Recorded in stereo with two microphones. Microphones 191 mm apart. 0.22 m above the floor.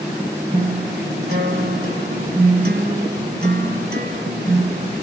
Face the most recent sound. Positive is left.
turn(degrees=-50)  # may be behind; listen again after turning